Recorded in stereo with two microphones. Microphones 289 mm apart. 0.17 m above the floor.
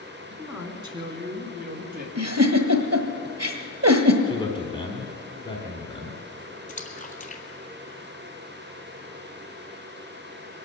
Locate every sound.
0.3 s a man speaking: 5° right (ahead or behind), 1.7 m; by 2.0 s 30° right (ahead or behind), 3 m
2.1 s a giggle: 60° right (ahead or behind), 1.4 m
4.3 s a man speaking: 15° left (ahead or behind), 1.5 m
6.7 s a splash: 25° left (ahead or behind), 1.4 m